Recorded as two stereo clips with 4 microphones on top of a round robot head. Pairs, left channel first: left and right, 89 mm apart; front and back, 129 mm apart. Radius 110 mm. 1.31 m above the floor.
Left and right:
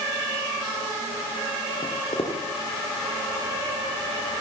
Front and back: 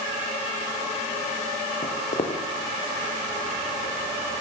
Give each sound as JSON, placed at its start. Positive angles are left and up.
{"t": 1.8, "sound": "footsteps", "azimuth_deg": 35, "distance_m": 5.5}